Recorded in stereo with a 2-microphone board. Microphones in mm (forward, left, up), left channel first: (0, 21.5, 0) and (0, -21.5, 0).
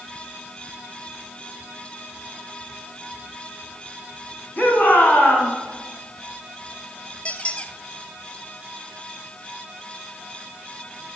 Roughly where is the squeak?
Left.